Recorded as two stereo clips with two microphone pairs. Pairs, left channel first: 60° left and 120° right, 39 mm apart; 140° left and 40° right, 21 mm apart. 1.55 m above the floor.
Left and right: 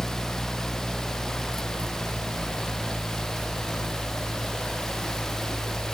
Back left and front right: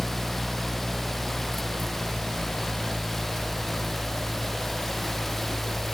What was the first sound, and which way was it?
Only background noise.